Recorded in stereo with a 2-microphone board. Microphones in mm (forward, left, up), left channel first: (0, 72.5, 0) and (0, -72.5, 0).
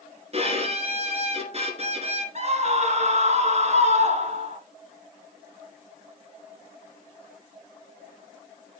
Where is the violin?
45° right (ahead or behind), 1.9 m.